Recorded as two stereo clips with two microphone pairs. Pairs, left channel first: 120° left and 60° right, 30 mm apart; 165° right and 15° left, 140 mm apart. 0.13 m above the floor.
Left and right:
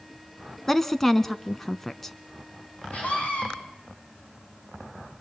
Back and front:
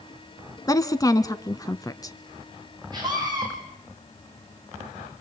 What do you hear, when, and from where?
0.7 s a woman speaking: 175° left, 1.1 m
2.9 s a scream: 75° left, 7.5 m